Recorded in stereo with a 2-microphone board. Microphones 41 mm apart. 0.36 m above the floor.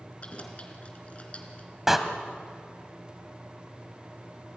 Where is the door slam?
10° right (ahead or behind), 1.8 m.